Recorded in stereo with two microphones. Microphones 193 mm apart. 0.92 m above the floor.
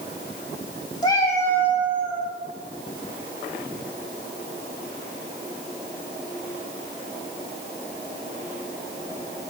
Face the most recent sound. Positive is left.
turn(degrees=0)  # may be behind; listen again after turning